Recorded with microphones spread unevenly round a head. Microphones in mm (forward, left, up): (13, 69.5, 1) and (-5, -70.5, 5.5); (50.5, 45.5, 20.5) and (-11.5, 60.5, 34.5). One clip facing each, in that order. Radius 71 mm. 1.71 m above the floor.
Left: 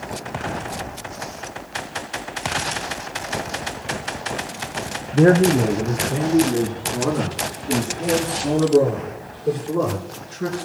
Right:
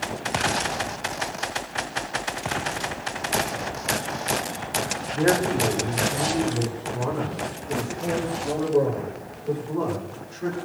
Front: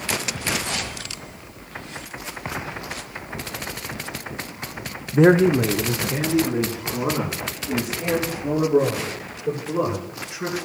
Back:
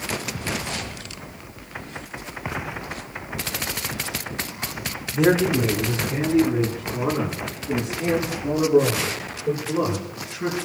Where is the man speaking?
35° left, 0.8 m; by 10.6 s 60° left, 9 m.